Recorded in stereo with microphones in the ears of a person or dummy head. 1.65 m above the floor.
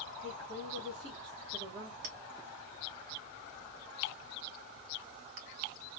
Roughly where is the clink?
Right.